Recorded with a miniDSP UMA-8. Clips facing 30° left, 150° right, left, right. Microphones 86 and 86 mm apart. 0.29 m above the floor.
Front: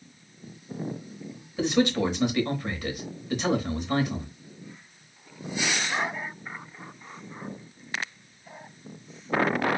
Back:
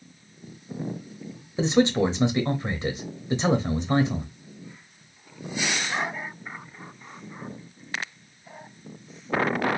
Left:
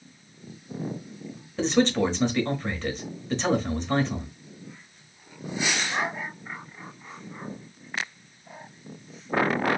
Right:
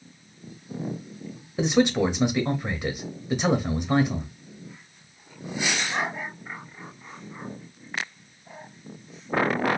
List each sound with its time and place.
1.6 s a man speaking: 150° right, 0.9 m